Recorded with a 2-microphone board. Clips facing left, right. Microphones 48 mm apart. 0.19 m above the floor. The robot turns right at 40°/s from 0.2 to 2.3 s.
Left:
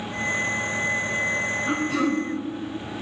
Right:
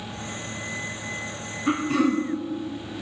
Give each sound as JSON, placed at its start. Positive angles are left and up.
{"t": 1.7, "sound": "throat clearing", "side_deg": -50, "distance_m": 3.5}